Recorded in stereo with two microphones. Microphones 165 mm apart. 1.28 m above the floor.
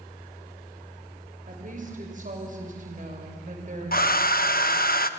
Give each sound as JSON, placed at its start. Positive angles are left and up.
{"t": 1.5, "sound": "a woman speaking", "side_deg": -55, "distance_m": 5.5}
{"t": 3.9, "sound": "a hair dryer", "side_deg": 60, "distance_m": 0.9}